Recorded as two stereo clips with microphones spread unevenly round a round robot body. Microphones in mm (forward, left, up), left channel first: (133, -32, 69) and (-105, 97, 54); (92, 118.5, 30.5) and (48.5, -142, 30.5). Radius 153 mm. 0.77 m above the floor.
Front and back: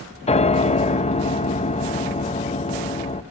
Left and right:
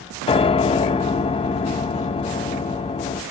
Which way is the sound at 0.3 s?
25° left.